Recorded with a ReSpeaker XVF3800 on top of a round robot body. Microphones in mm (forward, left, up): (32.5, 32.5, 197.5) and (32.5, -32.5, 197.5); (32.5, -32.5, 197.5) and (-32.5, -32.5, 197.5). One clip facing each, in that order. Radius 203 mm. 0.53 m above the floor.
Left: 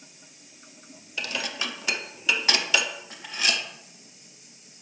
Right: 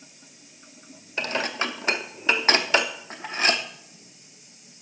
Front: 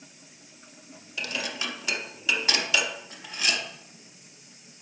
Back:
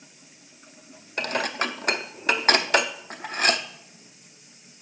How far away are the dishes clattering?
About 1.0 m.